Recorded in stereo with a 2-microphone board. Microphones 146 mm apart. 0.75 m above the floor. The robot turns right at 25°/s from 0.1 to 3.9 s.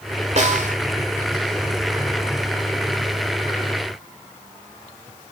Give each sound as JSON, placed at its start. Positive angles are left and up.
{"t": 0.4, "sound": "a snare drum", "side_deg": -50, "distance_m": 1.7}